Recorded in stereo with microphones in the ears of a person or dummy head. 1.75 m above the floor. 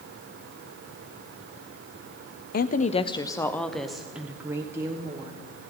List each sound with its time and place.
2.5 s a woman speaking: 50° left (ahead or behind), 0.6 m; by 5.4 s 20° right (ahead or behind), 1.6 m